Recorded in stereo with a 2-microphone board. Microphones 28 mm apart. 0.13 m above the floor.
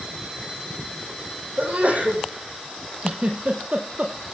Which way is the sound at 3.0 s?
50° right (ahead or behind).